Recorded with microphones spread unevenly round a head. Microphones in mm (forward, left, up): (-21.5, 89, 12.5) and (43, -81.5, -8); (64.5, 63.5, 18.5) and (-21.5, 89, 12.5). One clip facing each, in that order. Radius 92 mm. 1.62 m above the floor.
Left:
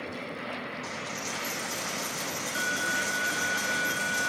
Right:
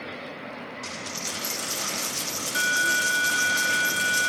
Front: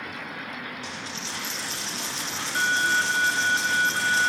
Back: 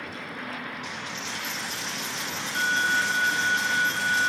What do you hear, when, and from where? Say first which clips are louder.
0.8 s a dropped coin: even, back 1 dB; 30° right, 1.2 m